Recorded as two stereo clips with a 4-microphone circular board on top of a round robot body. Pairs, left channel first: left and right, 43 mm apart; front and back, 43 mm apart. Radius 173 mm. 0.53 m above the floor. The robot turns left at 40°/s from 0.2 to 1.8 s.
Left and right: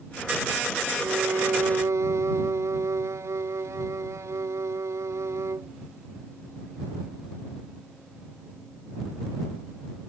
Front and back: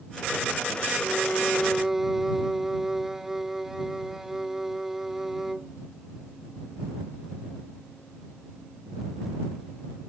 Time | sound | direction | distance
1.0 | a violin | 65° right | ?